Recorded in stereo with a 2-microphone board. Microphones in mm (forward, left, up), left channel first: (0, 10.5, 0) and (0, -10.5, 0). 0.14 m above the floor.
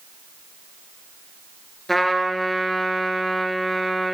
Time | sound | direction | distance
1.9 | a trumpet | 5° left (ahead or behind) | 1.6 m